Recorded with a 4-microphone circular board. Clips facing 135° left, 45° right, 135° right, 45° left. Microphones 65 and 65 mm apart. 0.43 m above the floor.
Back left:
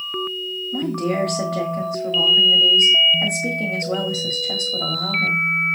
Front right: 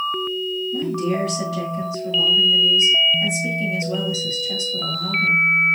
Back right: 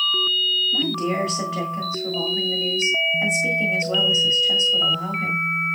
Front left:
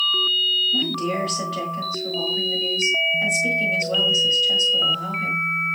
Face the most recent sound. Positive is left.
turn(degrees=145)